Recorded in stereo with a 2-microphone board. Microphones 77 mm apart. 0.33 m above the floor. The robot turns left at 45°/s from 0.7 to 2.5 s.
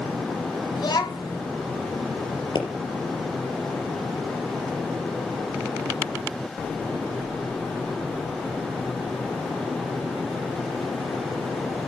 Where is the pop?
80° left, 3.5 m.